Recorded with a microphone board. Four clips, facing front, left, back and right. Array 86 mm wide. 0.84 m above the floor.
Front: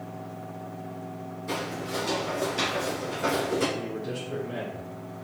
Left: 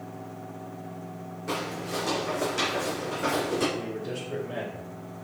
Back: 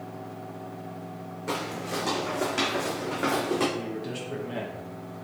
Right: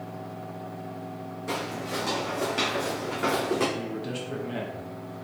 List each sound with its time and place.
1.5 s footsteps: straight behind, 2 m; by 3.7 s 155° right, 2.5 m
3.8 s a man speaking: 120° right, 1.5 m